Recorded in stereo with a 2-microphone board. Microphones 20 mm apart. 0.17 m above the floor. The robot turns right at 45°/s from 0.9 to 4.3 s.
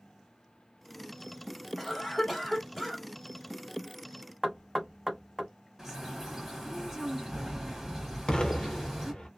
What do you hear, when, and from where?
1.8 s a cough: 15° left (ahead or behind), 1.1 m; by 3.0 s 20° left (ahead or behind), 1.1 m
4.4 s knocking: 10° right (ahead or behind), 0.8 m
5.8 s a bird: 10° right (ahead or behind), 1.5 m
8.3 s an explosion: 50° left (ahead or behind), 0.7 m